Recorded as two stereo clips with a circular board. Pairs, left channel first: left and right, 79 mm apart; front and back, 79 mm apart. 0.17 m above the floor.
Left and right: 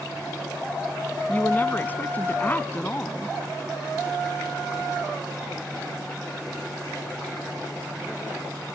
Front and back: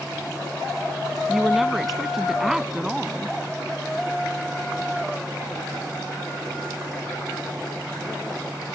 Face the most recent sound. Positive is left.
turn(degrees=100)